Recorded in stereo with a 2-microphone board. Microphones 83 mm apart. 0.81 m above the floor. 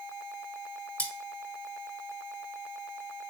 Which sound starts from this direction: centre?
Cutlery clinking, at 1.0 s.